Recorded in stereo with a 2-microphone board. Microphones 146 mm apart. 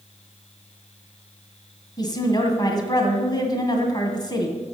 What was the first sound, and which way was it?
A woman speaking, 30° left (ahead or behind).